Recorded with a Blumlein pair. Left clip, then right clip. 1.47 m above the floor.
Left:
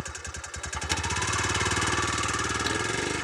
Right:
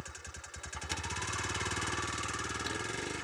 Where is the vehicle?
65° left.